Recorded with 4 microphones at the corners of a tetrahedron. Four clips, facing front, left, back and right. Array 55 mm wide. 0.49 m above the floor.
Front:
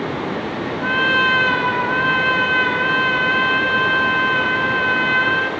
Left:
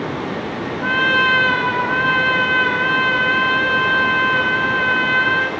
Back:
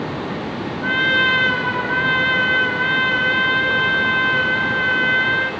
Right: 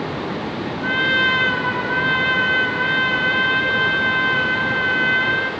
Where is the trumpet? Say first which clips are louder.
Left 2 dB, even; 45° left, 6 m.